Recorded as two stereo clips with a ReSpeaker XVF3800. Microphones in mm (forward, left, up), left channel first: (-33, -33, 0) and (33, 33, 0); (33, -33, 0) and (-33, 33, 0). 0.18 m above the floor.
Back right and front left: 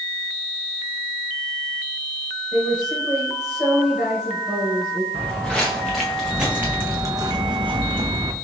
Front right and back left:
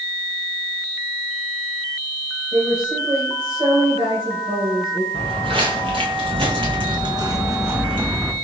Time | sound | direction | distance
2.5 | a woman speaking | 125° left | 2 m
5.1 | footsteps | 145° left | 1.5 m